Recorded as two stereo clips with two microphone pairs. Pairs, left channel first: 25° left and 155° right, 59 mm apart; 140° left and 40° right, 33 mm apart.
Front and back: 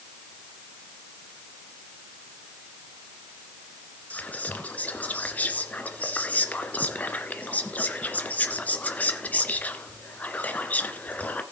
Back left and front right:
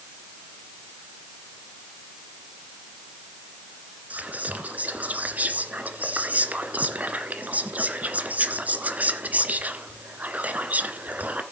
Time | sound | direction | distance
4.1 | whispering | 30° right | 1.9 m